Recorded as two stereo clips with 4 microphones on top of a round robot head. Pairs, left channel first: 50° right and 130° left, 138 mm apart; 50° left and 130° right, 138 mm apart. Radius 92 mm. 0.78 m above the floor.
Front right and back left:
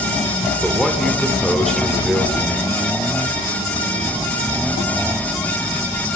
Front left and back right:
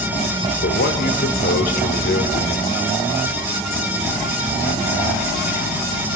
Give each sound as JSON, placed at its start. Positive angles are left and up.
{"t": 0.6, "sound": "a man speaking", "azimuth_deg": 40, "distance_m": 2.5}